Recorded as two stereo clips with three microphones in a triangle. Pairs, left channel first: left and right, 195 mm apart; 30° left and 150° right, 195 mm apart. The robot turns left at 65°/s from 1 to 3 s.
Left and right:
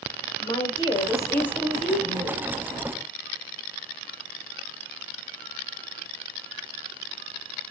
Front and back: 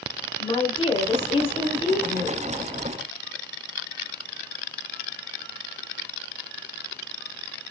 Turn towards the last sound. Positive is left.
turn(degrees=-80)